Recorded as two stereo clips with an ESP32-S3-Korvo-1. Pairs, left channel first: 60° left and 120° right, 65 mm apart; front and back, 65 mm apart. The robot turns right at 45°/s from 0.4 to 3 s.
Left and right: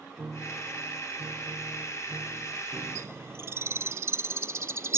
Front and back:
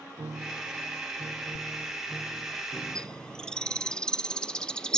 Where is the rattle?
I don't hear a rattle.